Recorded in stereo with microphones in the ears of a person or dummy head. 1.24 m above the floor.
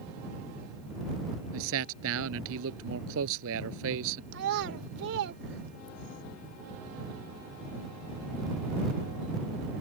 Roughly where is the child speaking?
Right.